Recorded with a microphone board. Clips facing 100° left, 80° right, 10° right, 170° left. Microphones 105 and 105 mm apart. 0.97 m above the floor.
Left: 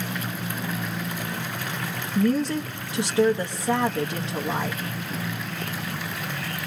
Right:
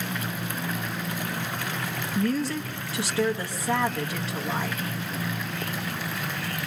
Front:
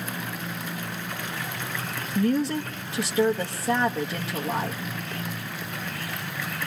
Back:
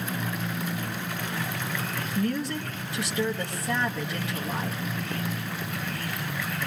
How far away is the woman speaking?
About 0.8 m.